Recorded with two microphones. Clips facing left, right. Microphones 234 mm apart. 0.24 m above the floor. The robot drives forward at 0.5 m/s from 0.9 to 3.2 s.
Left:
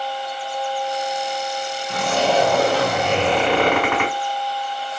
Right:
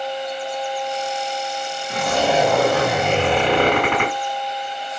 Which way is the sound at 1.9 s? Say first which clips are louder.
Even; 15° right (ahead or behind).